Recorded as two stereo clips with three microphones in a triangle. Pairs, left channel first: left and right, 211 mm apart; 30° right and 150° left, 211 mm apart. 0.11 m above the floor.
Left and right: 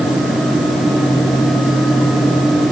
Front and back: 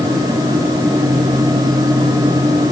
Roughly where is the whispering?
No whispering in this recording.